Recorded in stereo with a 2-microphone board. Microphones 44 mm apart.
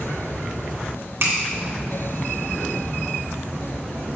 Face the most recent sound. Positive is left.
turn(degrees=-65)  # may be behind; listen again after turning